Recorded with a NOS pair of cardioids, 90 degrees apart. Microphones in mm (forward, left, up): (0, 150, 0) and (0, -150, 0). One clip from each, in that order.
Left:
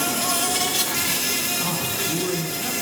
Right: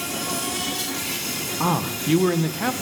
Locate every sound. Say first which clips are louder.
0.0 s an insect: left 4 dB; 50° left, 2 m
1.6 s a man speaking: right 1 dB; 60° right, 1.1 m